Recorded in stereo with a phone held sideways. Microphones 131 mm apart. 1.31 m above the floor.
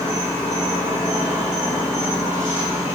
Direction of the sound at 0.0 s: 20° right (ahead or behind).